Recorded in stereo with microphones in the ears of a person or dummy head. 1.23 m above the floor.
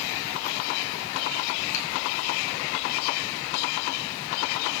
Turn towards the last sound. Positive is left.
turn(degrees=75)  # may be behind; listen again after turning